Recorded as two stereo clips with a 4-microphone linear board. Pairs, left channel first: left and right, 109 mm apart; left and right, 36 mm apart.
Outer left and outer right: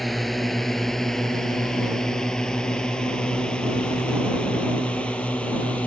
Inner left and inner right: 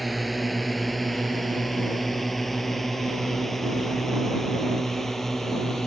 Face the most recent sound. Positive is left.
turn(degrees=10)  # may be behind; listen again after turning